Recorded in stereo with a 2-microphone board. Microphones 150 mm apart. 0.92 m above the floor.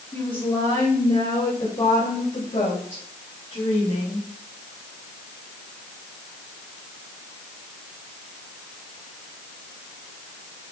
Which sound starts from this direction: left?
A woman speaking, at 0.1 s.